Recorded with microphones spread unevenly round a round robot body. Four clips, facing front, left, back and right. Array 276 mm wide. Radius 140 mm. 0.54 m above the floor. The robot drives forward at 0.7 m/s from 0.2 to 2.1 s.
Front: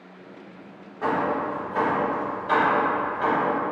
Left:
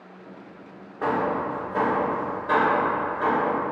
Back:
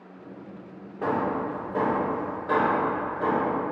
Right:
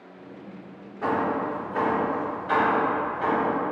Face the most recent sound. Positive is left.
turn(degrees=160)